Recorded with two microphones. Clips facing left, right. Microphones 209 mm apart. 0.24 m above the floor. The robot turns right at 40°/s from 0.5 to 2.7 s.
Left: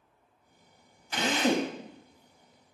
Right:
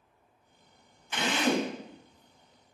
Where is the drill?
35° left (ahead or behind), 0.5 m; by 1.7 s 50° left (ahead or behind), 0.5 m.